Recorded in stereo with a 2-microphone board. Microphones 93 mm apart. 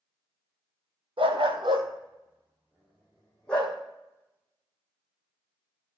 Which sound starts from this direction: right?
A dog barking, at 1.2 s.